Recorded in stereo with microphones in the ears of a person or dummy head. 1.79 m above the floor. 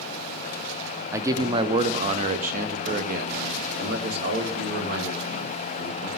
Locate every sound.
1.1 s a man speaking: 10° right (ahead or behind), 0.7 m; by 6.1 s 55° right (ahead or behind), 3 m